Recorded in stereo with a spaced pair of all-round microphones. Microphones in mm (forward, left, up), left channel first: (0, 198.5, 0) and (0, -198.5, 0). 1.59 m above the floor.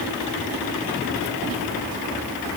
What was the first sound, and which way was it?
Only background noise.